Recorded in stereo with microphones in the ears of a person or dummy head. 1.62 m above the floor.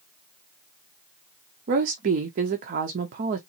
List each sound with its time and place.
1.7 s a woman speaking: 45° right (ahead or behind), 0.5 m